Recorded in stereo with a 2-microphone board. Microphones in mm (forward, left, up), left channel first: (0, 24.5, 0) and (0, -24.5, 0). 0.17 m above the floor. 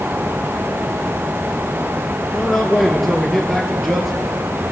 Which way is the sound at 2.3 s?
Centre (ahead or behind).